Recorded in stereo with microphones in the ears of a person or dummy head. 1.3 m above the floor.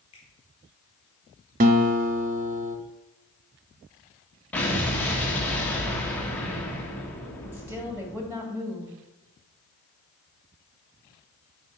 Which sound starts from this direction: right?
A guitar, at 1.6 s.